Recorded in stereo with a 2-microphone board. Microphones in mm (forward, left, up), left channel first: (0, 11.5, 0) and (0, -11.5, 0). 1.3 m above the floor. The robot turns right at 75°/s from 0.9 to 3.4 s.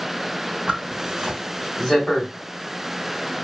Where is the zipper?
50° right (ahead or behind), 3 m; by 2.3 s 50° left (ahead or behind), 3 m.